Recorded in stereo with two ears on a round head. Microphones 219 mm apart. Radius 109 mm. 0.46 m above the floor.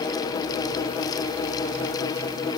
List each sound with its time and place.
Only background noise.